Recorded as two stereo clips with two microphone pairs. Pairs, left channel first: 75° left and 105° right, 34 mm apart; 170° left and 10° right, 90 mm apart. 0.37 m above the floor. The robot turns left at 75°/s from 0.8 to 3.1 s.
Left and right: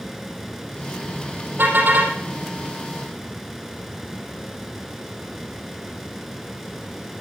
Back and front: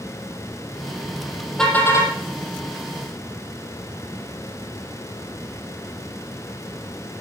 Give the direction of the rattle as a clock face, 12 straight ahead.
No rattle in this recording.